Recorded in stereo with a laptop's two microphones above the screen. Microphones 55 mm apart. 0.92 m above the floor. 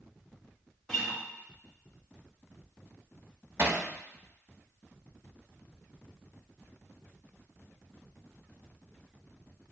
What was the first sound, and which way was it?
A guitar, 15° left (ahead or behind).